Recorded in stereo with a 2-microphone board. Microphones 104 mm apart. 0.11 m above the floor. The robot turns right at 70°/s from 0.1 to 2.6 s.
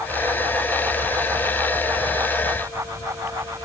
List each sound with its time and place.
Only background noise.